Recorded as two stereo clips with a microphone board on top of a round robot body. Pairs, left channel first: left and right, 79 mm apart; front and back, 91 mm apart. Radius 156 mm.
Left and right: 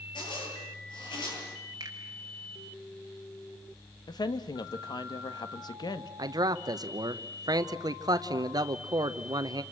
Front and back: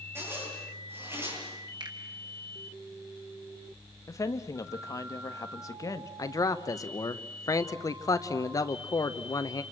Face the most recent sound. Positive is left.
turn(degrees=-55)